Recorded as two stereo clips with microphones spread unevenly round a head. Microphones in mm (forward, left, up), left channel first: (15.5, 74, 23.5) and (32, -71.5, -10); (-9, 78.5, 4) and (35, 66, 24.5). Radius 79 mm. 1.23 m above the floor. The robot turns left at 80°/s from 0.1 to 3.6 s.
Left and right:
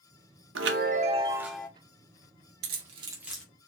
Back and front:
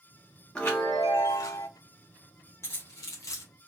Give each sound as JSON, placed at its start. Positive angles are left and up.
{"t": 0.6, "sound": "a chime", "azimuth_deg": -100, "distance_m": 0.7}
{"t": 2.6, "sound": "keys jangling", "azimuth_deg": -120, "distance_m": 0.8}